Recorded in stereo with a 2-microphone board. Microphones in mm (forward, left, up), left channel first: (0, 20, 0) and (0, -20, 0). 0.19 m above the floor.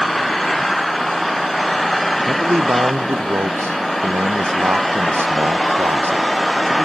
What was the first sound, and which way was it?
An engine running, centre (ahead or behind).